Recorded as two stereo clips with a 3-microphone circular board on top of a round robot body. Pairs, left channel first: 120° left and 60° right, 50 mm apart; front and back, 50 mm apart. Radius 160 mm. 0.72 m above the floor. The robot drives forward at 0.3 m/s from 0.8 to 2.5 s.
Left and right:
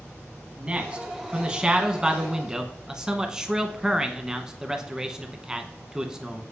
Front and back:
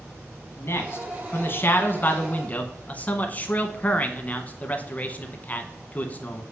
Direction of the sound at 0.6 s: Straight ahead.